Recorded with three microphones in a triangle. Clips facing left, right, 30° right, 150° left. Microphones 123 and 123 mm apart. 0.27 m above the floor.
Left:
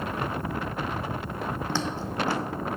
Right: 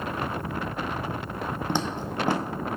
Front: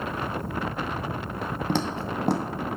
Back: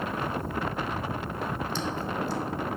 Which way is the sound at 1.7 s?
15° right.